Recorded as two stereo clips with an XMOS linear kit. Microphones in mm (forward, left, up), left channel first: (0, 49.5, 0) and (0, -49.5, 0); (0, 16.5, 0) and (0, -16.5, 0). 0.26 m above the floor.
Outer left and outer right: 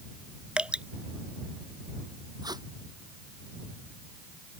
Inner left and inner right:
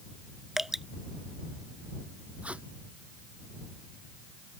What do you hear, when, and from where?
0.6 s dripping: 10° right (ahead or behind)
2.4 s tape being pulled: 40° right (ahead or behind)